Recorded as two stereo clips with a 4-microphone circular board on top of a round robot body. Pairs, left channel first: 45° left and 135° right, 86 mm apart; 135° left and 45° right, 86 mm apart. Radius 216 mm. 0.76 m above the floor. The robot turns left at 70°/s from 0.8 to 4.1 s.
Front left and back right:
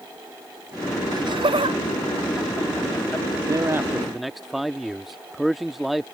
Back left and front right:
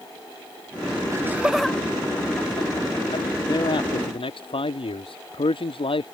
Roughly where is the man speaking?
Behind.